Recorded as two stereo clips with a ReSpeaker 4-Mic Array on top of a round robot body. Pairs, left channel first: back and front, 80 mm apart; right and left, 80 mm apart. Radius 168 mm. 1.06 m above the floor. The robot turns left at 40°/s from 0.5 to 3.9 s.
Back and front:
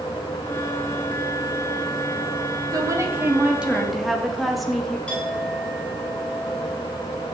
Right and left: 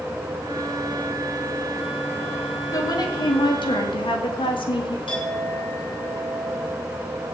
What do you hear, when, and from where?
2.7 s a woman speaking: 45° right, 2.5 m; by 5.0 s 90° right, 2.5 m
5.1 s a clink: 100° right, 6.5 m